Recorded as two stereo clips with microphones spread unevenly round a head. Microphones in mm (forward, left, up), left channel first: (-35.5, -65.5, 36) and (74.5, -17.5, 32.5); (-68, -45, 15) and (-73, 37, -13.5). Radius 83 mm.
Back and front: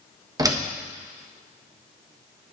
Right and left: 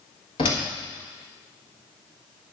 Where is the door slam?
35° right, 1.2 m.